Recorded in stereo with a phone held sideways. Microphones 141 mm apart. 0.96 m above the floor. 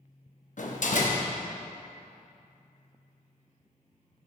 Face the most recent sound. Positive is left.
turn(degrees=65)  # may be behind; listen again after turning